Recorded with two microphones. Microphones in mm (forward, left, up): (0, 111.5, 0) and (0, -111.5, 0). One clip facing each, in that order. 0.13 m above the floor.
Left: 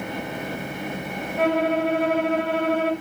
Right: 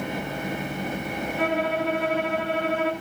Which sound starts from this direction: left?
A violin, at 1.4 s.